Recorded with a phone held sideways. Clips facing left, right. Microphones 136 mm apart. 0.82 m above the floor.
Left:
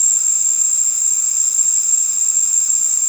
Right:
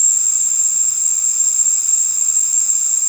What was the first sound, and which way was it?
An insect, 25° right (ahead or behind).